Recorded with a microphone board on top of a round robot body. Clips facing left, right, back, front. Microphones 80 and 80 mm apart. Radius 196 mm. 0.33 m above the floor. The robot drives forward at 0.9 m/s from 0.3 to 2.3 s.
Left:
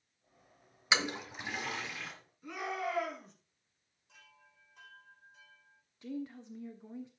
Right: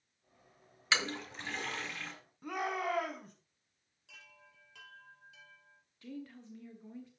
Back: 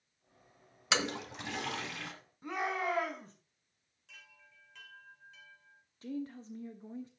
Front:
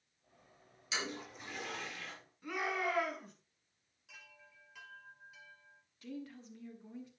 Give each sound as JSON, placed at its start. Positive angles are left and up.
{"t": 0.9, "sound": "a toilet flushing", "azimuth_deg": 160, "distance_m": 1.0}
{"t": 2.4, "sound": "a shout", "azimuth_deg": -125, "distance_m": 4.5}
{"t": 4.1, "sound": "a chime", "azimuth_deg": -80, "distance_m": 2.0}
{"t": 6.0, "sound": "a woman speaking", "azimuth_deg": 150, "distance_m": 1.5}